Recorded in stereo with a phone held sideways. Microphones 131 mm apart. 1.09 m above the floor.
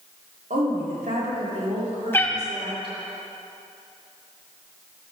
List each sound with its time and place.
0.5 s a woman speaking: 90° right, 2 m; by 2.9 s 45° right (ahead or behind), 3 m
2.1 s a cat meowing: 15° left (ahead or behind), 0.7 m